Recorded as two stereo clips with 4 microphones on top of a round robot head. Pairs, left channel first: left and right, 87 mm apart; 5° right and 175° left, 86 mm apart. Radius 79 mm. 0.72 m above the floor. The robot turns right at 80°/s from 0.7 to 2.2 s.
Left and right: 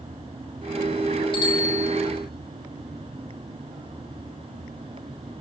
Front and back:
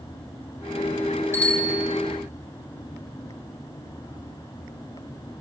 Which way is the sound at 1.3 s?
60° left.